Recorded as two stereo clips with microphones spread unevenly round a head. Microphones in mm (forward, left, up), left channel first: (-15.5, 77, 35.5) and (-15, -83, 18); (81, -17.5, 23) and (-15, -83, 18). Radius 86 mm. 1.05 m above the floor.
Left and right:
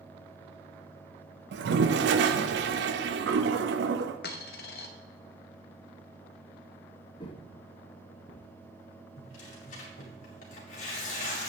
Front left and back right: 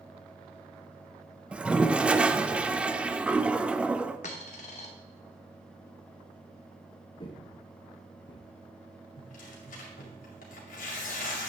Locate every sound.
1.5 s a toilet flushing: 65° right, 0.6 m
4.2 s a dropped coin: 70° left, 1.0 m
7.2 s footsteps: 60° left, 1.2 m; by 8.5 s straight ahead, 1.8 m
9.2 s tearing paper: 45° left, 2.5 m